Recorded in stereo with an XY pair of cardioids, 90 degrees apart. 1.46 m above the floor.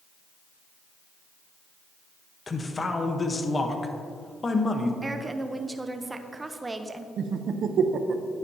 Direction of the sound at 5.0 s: 25° right.